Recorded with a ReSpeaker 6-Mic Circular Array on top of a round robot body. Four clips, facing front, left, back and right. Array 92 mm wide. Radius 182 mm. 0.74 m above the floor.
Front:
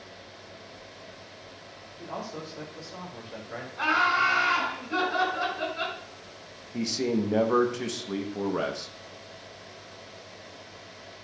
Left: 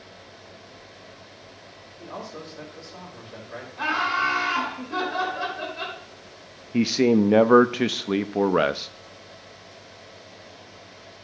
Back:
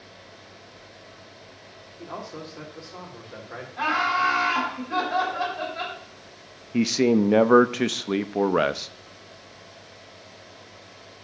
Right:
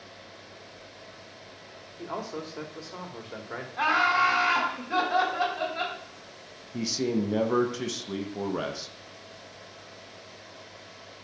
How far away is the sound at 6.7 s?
About 0.6 m.